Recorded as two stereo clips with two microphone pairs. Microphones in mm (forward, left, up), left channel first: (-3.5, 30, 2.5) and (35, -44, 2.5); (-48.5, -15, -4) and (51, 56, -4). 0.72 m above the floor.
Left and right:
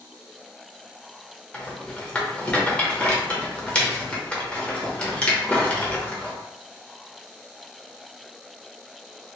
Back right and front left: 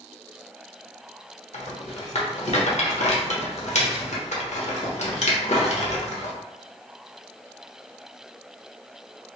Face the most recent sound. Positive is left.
turn(degrees=-165)